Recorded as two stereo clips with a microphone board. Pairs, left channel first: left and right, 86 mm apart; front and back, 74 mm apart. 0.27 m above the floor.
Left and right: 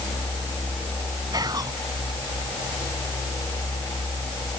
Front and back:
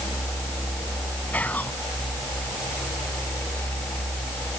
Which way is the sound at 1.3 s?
65° right.